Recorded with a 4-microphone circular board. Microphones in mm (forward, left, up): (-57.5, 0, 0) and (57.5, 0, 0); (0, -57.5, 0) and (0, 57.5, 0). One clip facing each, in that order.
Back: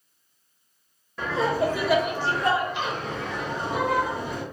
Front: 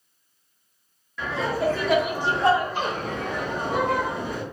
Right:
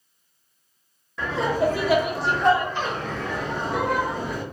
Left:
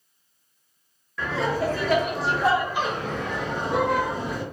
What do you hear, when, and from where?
1.2 s laughter: 150° right, 0.7 m; by 4.4 s 25° left, 1.5 m